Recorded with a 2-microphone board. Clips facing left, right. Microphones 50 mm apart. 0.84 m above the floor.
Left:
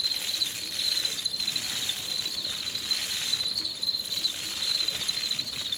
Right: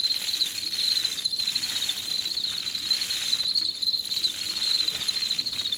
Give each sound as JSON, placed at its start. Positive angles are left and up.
{"t": 0.0, "sound": "an insect", "side_deg": 35, "distance_m": 0.7}